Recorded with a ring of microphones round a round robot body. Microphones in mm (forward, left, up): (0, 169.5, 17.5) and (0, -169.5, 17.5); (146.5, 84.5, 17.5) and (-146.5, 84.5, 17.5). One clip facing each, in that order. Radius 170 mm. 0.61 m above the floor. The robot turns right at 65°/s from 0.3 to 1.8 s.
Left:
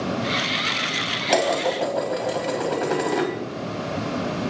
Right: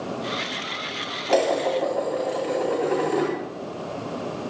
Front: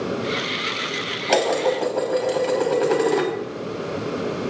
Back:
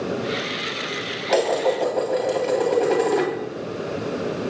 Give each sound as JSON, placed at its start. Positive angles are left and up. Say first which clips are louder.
{"t": 1.3, "sound": "dishes clattering", "louder": "right 1 dB, even", "azimuth_deg": 35, "distance_m": 3.0}